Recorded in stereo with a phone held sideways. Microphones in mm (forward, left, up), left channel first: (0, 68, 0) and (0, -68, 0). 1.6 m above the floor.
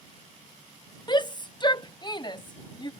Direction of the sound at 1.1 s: 35° left (ahead or behind).